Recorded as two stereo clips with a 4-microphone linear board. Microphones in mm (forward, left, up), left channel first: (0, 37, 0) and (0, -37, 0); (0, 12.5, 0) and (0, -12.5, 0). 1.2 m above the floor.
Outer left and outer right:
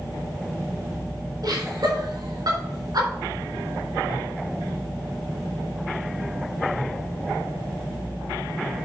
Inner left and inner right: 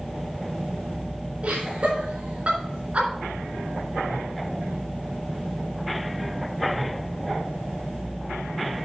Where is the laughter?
65° right (ahead or behind), 4 m.